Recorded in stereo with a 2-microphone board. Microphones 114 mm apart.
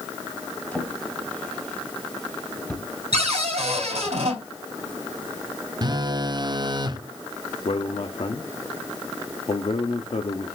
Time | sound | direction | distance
0.7 | a drawer | 10° left (ahead or behind) | 2 m
3.1 | a cupboard door | 70° right (ahead or behind) | 4.5 m
5.8 | a phone buzzing | 40° right (ahead or behind) | 0.7 m
7.7 | a man speaking | 65° left (ahead or behind) | 1.1 m